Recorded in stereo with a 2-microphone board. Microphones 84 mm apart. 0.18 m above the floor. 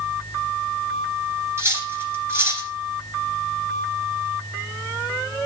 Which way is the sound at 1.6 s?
30° right (ahead or behind).